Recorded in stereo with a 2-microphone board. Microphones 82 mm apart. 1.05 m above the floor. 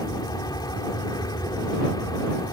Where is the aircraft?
55° left (ahead or behind); by 2.5 s 50° left (ahead or behind).